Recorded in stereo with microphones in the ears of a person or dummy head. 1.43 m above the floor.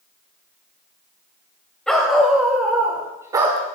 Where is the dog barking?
5° left (ahead or behind), 3 m; by 3.8 s 35° right (ahead or behind), 1.5 m.